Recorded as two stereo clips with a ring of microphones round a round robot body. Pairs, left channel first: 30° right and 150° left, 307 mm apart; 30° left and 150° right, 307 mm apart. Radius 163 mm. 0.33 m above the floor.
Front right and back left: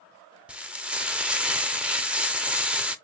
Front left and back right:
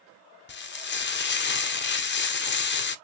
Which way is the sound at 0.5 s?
65° left.